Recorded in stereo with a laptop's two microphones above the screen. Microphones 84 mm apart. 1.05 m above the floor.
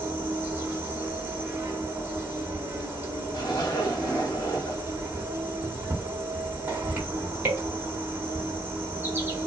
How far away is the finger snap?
I don't hear a finger snap.